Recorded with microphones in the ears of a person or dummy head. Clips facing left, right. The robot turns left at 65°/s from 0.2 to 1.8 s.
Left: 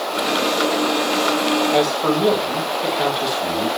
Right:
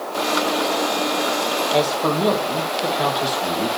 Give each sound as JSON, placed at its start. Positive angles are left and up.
{"t": 1.7, "sound": "a man speaking", "side_deg": 10, "distance_m": 2.5}